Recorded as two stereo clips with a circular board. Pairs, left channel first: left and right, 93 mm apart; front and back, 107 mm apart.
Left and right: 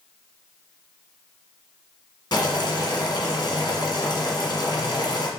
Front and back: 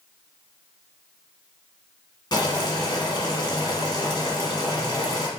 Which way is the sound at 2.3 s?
50° left.